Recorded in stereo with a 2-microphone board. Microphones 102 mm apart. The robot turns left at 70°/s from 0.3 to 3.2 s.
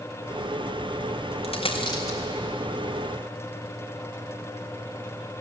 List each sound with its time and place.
1.4 s a dropped coin: 80° left, 3.5 m; by 2.2 s 25° left (ahead or behind), 3.5 m